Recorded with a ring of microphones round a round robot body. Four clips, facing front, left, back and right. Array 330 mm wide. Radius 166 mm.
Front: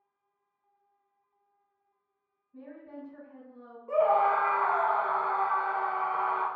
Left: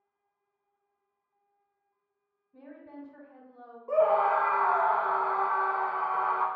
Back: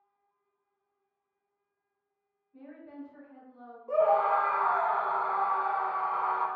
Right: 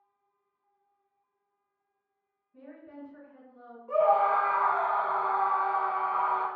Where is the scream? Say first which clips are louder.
Even, even; 85° left, 0.9 m.